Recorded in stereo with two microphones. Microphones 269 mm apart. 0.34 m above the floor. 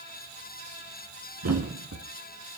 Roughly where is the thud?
Right.